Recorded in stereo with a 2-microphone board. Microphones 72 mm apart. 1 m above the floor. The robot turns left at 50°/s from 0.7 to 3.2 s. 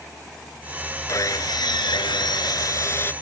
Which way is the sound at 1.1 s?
135° left.